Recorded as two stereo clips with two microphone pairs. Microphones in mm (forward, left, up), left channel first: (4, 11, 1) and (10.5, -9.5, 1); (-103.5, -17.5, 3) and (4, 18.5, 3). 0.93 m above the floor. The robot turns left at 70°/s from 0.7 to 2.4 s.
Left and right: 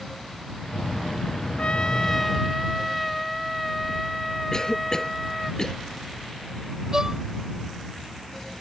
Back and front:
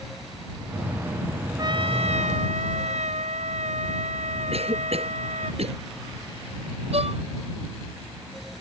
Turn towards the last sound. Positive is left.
turn(degrees=-10)